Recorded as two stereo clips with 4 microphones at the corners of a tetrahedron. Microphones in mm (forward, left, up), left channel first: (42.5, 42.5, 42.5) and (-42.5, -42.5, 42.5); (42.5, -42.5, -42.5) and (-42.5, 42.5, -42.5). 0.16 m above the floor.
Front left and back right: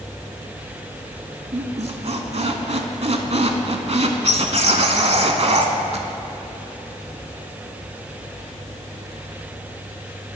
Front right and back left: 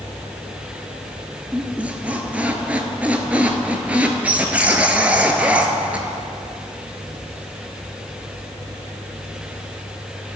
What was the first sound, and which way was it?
A squeak, 150° right.